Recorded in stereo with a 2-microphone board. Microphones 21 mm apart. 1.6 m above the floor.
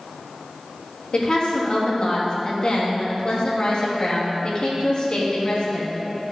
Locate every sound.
1.1 s a woman speaking: 45° left (ahead or behind), 3 m